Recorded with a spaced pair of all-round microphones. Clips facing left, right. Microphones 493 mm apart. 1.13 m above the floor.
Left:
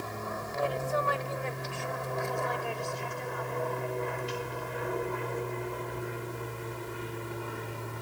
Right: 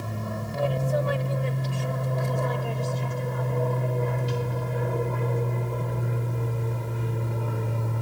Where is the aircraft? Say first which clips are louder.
Right 4 dB; 50° right (ahead or behind); by 8.0 s 65° right (ahead or behind).